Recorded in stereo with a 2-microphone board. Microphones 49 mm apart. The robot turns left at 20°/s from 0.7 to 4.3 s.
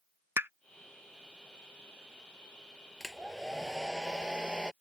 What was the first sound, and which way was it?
A pop, 50° right (ahead or behind).